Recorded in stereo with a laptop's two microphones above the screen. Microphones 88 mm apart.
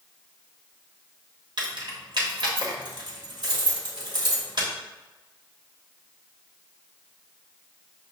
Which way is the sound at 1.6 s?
60° right (ahead or behind).